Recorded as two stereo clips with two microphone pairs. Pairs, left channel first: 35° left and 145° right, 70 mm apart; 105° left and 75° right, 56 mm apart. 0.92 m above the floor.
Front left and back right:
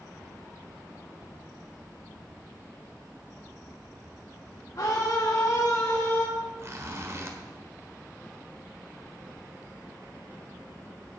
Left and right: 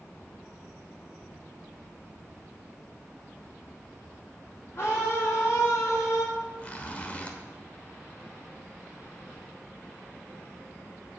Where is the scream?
65° left, 2 m; by 6.2 s 95° left, 3 m.